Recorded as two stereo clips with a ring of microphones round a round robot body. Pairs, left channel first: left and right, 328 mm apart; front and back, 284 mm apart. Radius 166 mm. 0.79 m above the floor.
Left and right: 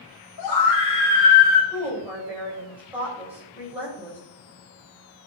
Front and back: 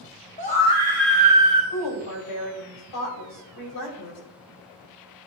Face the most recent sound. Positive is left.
turn(degrees=-5)